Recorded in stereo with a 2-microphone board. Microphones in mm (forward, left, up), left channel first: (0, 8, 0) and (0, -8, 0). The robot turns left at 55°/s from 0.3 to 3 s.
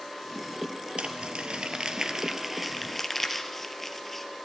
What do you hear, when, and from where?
1.0 s crumpling: 80° right, 2.5 m; by 4.3 s 15° left (ahead or behind), 2.5 m